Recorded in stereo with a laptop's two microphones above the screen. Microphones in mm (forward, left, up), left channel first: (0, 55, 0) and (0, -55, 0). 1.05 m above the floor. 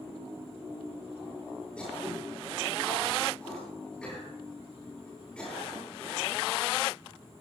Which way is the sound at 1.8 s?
10° left (ahead or behind).